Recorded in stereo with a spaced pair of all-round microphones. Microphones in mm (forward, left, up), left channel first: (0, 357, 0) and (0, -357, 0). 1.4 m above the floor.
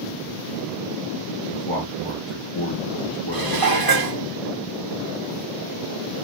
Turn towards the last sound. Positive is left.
turn(degrees=-30)  # may be behind; listen again after turning